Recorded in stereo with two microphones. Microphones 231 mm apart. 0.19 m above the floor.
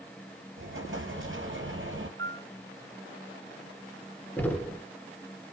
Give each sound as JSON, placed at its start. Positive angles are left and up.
{"t": 0.6, "sound": "an explosion", "side_deg": -60, "distance_m": 3.0}
{"t": 2.2, "sound": "a piano", "side_deg": -60, "distance_m": 1.1}
{"t": 4.4, "sound": "knocking", "side_deg": 10, "distance_m": 1.7}